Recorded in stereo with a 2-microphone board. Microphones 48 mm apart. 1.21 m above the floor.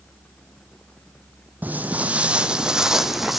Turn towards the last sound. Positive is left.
turn(degrees=-5)  # may be behind; listen again after turning